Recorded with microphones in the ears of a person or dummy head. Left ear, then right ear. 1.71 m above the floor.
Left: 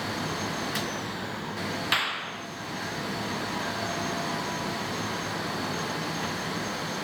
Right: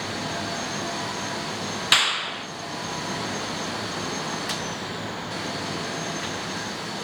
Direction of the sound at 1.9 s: 15° right (ahead or behind).